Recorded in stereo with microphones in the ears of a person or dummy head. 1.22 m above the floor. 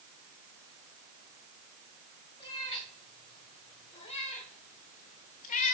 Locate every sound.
2.4 s a cat meowing: 25° left (ahead or behind), 2.5 m; by 5.7 s 45° left (ahead or behind), 1.1 m